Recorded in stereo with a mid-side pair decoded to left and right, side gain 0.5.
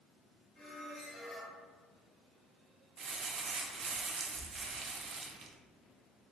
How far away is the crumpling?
About 0.5 m.